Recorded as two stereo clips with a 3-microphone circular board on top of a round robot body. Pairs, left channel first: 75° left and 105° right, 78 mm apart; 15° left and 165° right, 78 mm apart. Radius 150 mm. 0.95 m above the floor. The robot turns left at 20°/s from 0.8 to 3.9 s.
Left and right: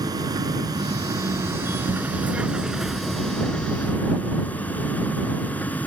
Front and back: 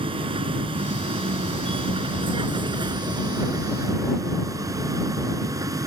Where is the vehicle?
150° right; by 5.9 s 145° left.